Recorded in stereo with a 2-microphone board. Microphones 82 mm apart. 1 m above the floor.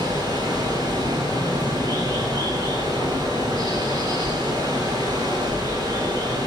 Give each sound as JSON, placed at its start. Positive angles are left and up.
{"t": 0.0, "sound": "running water", "side_deg": -60, "distance_m": 7.5}